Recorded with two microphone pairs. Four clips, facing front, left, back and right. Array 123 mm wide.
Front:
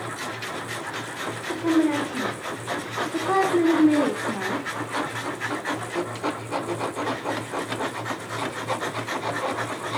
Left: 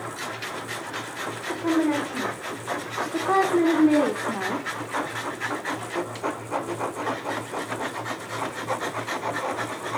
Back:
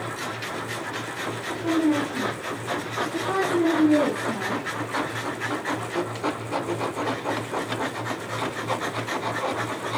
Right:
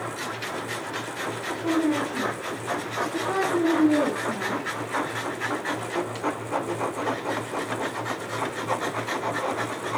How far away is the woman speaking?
About 5 m.